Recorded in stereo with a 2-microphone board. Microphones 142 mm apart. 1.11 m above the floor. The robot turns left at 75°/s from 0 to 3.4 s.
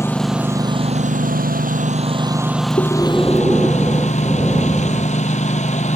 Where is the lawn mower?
20° left; by 6.0 s 125° left.